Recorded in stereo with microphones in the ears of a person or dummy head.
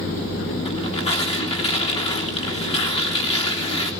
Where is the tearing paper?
35° left (ahead or behind), 3.5 m.